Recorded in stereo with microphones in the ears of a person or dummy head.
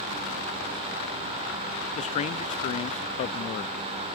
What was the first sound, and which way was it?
A man speaking, 40° left (ahead or behind).